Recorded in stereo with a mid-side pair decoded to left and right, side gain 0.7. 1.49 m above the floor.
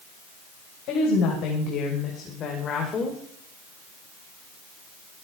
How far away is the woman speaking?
About 6.5 m.